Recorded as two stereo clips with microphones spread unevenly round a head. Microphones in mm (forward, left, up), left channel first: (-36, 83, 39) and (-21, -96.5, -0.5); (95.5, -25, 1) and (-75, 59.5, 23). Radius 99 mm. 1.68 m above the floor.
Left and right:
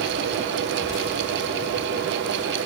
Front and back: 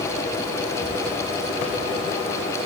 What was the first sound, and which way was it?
Only background noise.